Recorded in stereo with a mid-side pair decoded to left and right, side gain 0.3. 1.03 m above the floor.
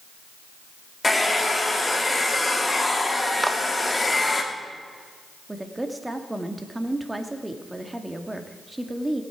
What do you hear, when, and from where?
1.0 s a hair dryer: 20° left, 2.5 m
3.4 s a clap: 20° right, 1.1 m
5.5 s a woman speaking: 20° right, 1.9 m